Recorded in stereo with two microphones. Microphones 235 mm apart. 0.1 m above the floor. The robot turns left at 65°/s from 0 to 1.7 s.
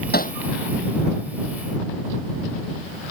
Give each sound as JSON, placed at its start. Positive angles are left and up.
{"t": 0.1, "sound": "hammering", "side_deg": 45}